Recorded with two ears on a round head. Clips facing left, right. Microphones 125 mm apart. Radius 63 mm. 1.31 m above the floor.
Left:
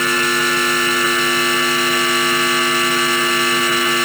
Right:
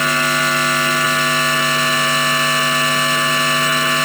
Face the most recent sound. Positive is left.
No sound to turn to.